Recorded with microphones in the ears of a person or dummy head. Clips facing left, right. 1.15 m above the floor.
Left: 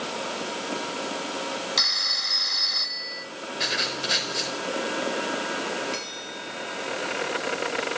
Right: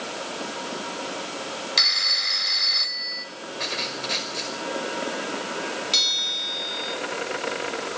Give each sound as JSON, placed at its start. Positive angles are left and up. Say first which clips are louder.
{"t": 1.8, "sound": "a phone ringing", "louder": "even", "side_deg": -30, "distance_m": 1.3}
{"t": 3.6, "sound": "writing", "louder": "left 1 dB", "side_deg": 10, "distance_m": 5.0}
{"t": 5.9, "sound": "a bell", "louder": "left 1 dB", "side_deg": -50, "distance_m": 3.5}